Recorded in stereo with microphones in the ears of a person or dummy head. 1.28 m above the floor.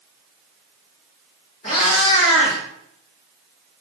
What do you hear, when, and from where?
1.6 s a cat meowing: 15° left (ahead or behind), 0.6 m